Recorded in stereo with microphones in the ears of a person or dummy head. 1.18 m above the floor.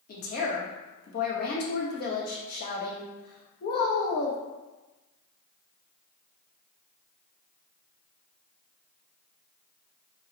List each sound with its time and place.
0.1 s a woman speaking: 50° left (ahead or behind), 0.8 m